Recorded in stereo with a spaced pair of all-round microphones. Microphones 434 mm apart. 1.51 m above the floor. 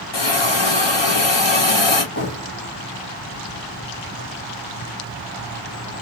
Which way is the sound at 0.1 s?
65° left (ahead or behind).